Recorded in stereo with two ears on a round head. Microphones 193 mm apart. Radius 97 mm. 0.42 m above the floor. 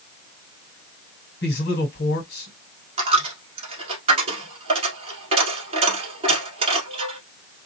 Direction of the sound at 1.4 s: 50° left (ahead or behind).